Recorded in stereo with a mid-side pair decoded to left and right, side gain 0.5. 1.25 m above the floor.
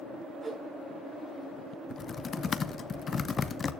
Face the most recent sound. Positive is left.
turn(degrees=35)